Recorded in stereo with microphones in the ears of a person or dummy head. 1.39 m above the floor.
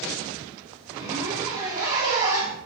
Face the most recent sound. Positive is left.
turn(degrees=-20)  # may be behind; listen again after turning